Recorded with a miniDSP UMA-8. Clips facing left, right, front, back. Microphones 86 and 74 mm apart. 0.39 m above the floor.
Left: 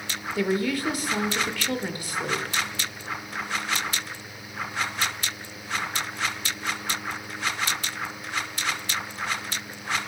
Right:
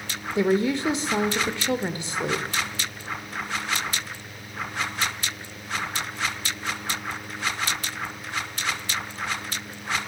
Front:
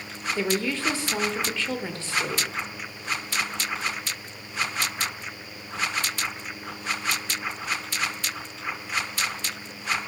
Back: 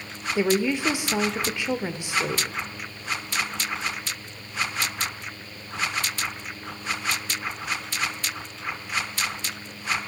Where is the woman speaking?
125° right, 0.9 m.